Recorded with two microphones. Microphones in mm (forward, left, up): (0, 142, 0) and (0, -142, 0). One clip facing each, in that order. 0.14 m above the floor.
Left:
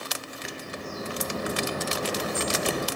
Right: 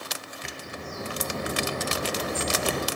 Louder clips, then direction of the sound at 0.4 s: Left 2 dB; 5° left (ahead or behind).